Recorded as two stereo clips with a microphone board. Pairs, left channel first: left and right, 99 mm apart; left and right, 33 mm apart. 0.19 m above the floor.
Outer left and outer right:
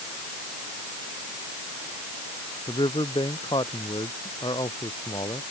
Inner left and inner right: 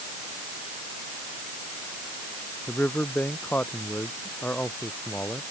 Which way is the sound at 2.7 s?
55° left (ahead or behind).